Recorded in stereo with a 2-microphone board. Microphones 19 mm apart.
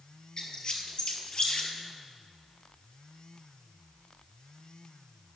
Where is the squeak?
50° left (ahead or behind), 1.6 m.